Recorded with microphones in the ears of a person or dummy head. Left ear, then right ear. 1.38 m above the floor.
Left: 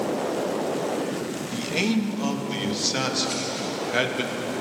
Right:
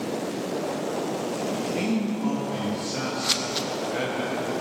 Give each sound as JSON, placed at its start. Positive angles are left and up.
{"t": 1.5, "sound": "a man speaking", "side_deg": 40, "distance_m": 1.1}
{"t": 3.2, "sound": "scissors", "side_deg": -40, "distance_m": 0.6}